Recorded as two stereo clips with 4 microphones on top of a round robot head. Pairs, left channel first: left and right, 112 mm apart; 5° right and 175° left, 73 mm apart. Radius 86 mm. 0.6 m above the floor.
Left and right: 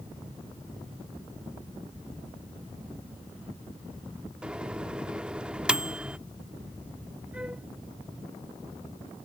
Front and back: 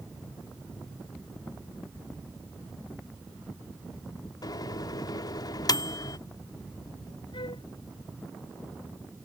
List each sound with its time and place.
4.4 s a microwave: 10° right
7.3 s a flute: 10° right